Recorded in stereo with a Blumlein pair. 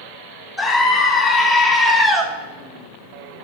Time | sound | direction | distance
0.6 | a scream | 10° left | 3.5 m